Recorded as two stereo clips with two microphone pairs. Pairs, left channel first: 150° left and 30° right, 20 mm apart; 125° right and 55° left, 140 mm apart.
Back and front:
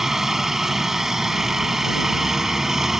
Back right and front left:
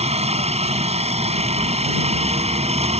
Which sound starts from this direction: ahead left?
A helicopter, at 0.0 s.